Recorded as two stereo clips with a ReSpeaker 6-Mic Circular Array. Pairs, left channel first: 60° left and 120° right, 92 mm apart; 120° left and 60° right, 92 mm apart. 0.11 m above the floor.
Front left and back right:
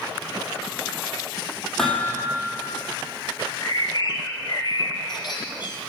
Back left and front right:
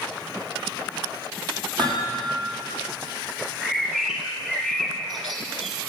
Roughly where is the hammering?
Ahead right.